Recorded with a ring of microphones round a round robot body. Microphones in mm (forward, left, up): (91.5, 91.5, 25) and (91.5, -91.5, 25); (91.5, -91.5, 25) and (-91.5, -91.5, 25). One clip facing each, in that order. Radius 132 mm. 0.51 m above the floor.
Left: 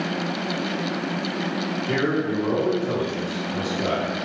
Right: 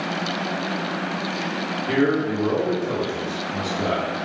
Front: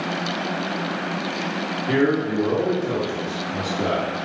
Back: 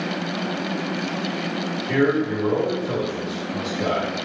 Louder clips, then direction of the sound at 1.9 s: Right 4 dB, even; 10° right.